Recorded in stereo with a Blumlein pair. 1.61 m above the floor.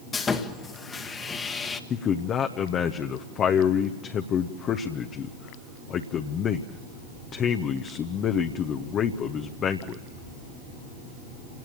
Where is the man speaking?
30° left, 1.0 m.